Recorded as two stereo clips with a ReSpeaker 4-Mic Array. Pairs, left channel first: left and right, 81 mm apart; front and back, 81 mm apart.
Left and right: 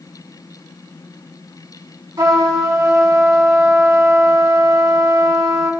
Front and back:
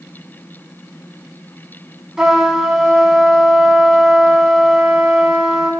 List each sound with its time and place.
2.2 s a trumpet: 100° right, 0.8 m